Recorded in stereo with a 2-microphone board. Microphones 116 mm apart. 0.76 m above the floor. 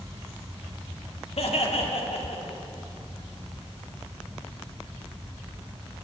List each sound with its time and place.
1.4 s laughter: 65° left (ahead or behind), 1.8 m; by 2.6 s 70° left (ahead or behind), 2.5 m